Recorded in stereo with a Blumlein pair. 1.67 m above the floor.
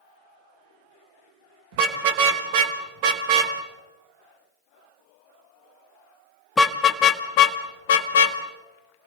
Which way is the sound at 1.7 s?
50° right.